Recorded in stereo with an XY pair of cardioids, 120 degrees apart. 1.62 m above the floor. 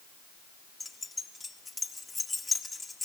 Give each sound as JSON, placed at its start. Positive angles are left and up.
{"t": 0.8, "sound": "keys jangling", "azimuth_deg": 15, "distance_m": 1.9}